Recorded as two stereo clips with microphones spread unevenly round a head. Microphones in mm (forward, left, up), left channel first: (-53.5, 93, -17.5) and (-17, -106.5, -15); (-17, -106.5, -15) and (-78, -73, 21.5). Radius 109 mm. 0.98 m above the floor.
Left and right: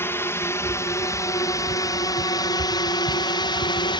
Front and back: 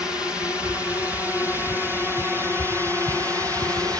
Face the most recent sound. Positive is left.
turn(degrees=110)